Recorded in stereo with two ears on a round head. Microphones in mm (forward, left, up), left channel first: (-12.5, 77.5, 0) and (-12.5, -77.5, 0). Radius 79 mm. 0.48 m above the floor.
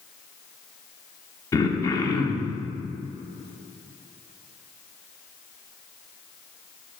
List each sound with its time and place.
1.5 s throat clearing: 20° left (ahead or behind), 0.5 m